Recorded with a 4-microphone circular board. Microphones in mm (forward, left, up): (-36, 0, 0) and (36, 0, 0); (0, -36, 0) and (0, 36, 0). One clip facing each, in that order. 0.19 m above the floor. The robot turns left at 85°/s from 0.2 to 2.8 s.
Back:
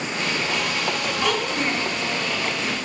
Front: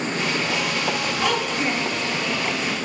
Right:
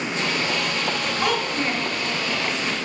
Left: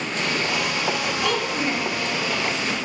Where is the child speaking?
80° right, 1.2 m; by 1.9 s 135° right, 1.2 m.